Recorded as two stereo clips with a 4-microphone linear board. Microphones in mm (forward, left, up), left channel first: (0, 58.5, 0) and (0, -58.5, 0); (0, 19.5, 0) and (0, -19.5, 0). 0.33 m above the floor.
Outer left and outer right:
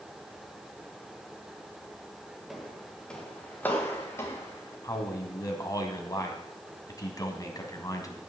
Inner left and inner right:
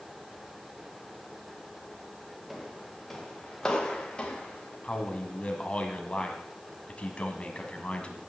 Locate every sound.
2.5 s footsteps: centre (ahead or behind), 3 m; by 4.7 s 25° left (ahead or behind), 4 m
4.8 s a man speaking: 30° left (ahead or behind), 2.5 m